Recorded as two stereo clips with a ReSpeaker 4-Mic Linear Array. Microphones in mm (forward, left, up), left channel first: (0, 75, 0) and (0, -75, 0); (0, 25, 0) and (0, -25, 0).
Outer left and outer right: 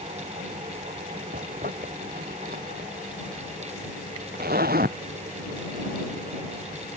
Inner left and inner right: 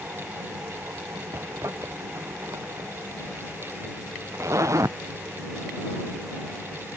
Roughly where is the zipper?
Right.